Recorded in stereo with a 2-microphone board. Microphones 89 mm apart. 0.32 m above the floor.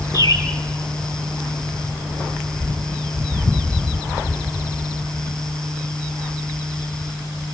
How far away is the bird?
About 3 m.